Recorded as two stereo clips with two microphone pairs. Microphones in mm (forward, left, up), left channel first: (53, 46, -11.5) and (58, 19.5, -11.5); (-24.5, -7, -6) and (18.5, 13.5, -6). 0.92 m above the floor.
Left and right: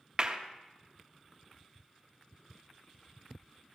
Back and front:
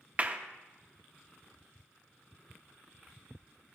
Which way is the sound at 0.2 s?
25° right.